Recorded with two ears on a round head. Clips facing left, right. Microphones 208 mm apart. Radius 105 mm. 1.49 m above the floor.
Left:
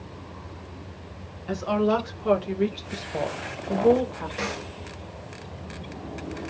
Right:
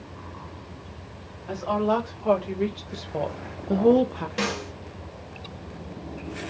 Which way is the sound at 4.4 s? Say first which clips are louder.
Right 5 dB; 45° right (ahead or behind).